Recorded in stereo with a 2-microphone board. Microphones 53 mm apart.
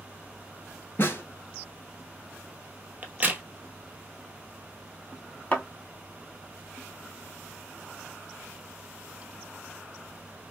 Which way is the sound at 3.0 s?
30° right (ahead or behind).